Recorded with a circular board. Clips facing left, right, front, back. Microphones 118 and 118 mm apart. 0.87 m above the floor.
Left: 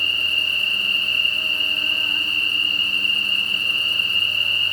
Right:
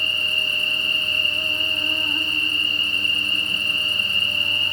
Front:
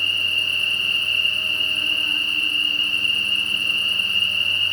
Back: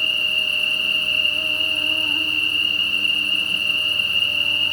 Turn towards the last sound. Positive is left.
turn(degrees=-145)